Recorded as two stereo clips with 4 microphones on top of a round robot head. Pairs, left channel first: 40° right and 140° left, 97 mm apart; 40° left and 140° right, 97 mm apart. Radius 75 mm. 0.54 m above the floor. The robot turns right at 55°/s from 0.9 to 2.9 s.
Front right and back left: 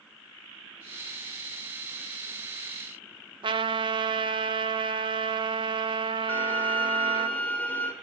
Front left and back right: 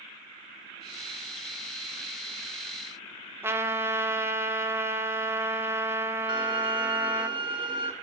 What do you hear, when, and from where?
3.4 s a trumpet: 155° left, 1.7 m
6.3 s a violin: 110° right, 2 m